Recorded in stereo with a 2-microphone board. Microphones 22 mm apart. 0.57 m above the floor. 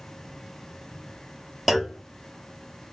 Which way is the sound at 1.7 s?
10° right (ahead or behind).